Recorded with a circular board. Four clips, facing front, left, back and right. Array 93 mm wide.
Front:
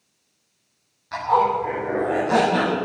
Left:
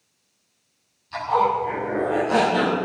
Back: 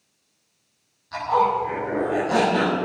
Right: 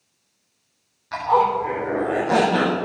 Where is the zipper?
60° right, 7 m.